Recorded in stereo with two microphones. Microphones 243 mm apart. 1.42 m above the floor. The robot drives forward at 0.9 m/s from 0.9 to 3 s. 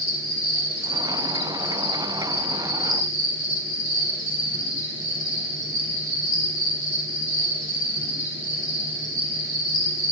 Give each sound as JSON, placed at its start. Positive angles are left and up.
{"t": 0.0, "sound": "an insect", "side_deg": 55, "distance_m": 3.0}